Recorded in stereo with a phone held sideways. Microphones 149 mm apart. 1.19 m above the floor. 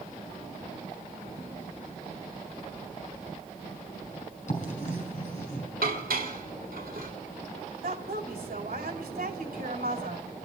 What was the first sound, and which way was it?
Writing, 50° left (ahead or behind).